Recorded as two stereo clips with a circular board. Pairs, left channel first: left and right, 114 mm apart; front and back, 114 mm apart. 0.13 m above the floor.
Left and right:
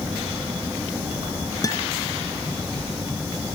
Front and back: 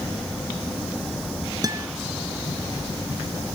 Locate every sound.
1.6 s a guitar: 135° left, 1.5 m